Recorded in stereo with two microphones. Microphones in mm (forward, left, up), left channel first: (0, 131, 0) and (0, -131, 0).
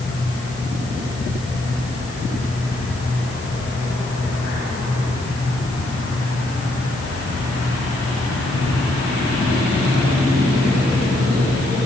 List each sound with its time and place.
Only background noise.